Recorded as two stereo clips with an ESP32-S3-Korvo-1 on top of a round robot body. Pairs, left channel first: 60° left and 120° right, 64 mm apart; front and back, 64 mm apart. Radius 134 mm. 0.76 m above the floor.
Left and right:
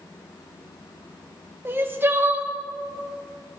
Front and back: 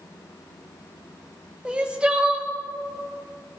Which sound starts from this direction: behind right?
Crying, at 1.6 s.